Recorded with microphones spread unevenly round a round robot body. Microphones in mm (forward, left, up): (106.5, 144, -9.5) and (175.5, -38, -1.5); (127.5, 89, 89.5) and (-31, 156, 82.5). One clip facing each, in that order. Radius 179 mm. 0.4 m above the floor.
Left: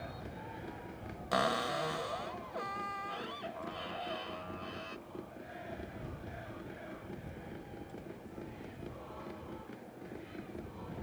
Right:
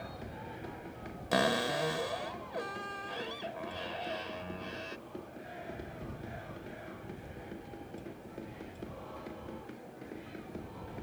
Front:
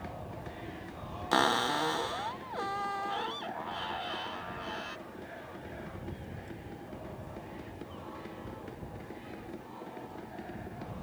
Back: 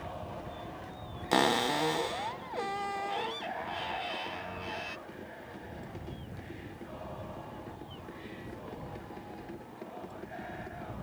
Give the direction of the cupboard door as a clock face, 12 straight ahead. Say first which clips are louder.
Right 4 dB, back 2 dB; 5 o'clock.